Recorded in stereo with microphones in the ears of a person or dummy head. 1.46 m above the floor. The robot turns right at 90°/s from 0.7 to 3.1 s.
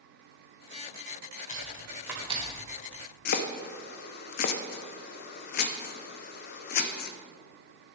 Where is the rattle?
I don't hear a rattle.